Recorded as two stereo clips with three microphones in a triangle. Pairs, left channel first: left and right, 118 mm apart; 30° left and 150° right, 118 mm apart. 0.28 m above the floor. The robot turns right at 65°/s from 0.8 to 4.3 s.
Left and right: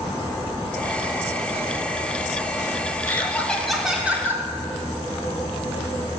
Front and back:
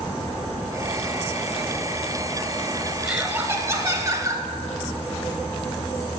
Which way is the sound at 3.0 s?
135° left.